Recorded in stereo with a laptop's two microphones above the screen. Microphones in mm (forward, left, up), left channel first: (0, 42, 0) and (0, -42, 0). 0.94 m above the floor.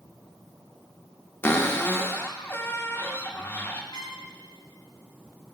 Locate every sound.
1.4 s a cupboard door: 25° left (ahead or behind), 0.6 m
3.9 s a trumpet: 65° left (ahead or behind), 1.7 m